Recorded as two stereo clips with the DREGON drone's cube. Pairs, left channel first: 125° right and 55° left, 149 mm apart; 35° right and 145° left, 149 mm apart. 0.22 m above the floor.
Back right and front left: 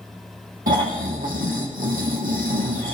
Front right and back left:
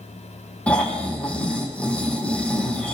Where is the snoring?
45° left, 4 m.